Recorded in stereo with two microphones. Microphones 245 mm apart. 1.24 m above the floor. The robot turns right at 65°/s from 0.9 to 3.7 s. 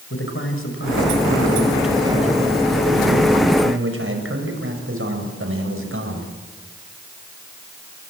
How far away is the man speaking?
About 5.5 m.